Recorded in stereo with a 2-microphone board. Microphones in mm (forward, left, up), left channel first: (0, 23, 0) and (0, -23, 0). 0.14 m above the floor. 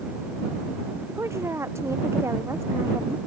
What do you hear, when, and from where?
1.1 s a woman speaking: 80° right